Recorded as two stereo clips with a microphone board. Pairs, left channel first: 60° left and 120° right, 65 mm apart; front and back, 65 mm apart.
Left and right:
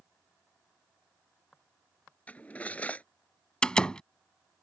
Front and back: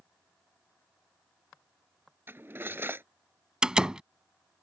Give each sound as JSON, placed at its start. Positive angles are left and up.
{"t": 2.3, "sound": "cutlery clinking", "azimuth_deg": 130}
{"t": 3.6, "sound": "a door slam", "azimuth_deg": 120}